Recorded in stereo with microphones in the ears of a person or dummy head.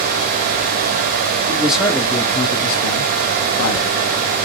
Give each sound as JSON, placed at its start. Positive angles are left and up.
{"t": 1.5, "sound": "a man speaking", "side_deg": -15, "distance_m": 1.2}